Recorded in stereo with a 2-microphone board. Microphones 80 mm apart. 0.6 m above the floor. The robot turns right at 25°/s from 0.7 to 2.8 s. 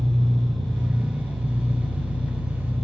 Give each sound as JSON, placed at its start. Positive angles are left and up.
{"t": 0.0, "sound": "an engine running", "azimuth_deg": -50, "distance_m": 1.9}